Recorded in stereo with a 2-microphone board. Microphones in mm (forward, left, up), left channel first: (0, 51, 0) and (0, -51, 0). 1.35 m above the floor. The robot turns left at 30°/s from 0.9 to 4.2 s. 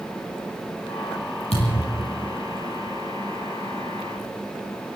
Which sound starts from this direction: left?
A thud, at 1.5 s.